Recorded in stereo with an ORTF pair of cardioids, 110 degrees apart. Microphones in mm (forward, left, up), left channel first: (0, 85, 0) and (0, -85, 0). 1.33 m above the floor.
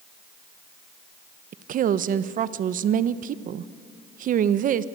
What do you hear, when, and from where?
1.5 s a woman speaking: 50° right, 1.0 m